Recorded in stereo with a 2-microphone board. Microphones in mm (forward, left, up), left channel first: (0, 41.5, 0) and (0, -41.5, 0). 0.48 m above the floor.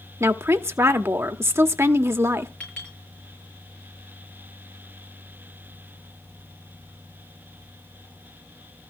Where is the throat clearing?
I don't hear throat clearing.